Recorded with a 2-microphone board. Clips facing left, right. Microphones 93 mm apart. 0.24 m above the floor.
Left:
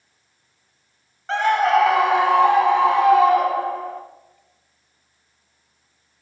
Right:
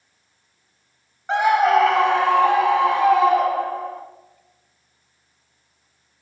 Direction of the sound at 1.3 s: 15° right (ahead or behind).